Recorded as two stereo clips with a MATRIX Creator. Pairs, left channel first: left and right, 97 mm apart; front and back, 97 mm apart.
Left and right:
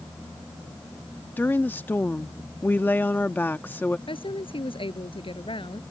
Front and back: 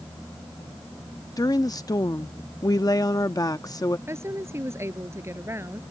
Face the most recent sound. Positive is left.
turn(degrees=115)